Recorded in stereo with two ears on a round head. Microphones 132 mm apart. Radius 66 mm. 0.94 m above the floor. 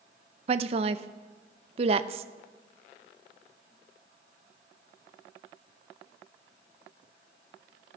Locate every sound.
0.5 s a woman speaking: 40° right (ahead or behind), 0.6 m